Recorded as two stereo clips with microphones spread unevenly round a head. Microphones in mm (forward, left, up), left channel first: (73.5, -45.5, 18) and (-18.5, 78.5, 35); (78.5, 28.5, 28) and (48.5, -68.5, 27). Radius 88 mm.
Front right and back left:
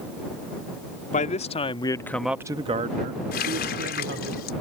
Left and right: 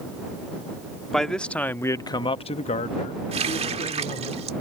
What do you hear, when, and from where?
1.1 s a man speaking: 15° right; by 4.3 s 115° left
3.3 s a running tap: 90° right